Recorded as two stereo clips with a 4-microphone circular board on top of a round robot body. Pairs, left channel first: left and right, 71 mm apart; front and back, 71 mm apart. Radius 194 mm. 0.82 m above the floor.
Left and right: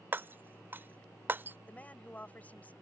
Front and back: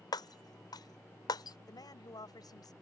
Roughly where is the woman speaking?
Ahead.